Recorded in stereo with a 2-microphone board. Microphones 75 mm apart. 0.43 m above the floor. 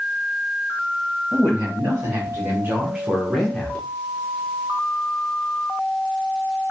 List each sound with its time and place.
1.3 s a man speaking: 40° right (ahead or behind), 1.8 m; by 3.9 s 20° left (ahead or behind), 0.8 m